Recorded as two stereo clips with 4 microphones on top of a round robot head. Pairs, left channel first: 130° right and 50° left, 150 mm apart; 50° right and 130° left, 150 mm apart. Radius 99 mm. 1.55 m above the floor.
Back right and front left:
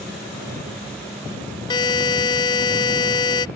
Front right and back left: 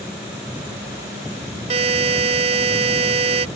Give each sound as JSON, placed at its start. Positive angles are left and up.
{"t": 1.7, "sound": "a buzzer", "azimuth_deg": 175}